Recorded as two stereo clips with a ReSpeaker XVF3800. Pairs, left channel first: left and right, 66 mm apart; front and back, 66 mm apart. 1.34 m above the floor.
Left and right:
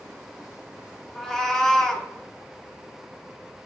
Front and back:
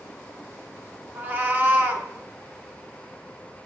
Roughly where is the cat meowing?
Behind.